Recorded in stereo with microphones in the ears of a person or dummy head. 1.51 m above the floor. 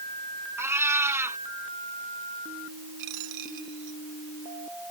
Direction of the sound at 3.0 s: 65° right (ahead or behind).